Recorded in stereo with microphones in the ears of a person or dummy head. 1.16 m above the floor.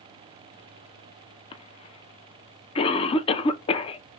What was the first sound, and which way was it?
A cough, 30° left (ahead or behind).